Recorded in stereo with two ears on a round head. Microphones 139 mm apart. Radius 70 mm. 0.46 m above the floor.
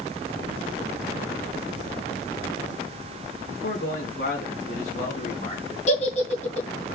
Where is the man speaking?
65° left (ahead or behind), 5 m; by 5.8 s 40° left (ahead or behind), 3 m.